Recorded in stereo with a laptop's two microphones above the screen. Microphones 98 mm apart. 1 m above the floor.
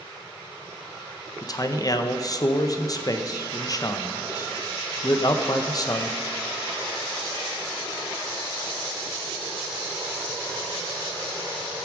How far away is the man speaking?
About 0.8 m.